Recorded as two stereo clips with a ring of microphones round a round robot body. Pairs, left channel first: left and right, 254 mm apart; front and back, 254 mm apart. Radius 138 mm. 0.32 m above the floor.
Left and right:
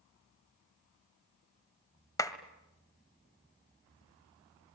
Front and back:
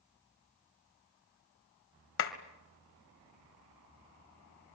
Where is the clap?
15° left, 1.7 m.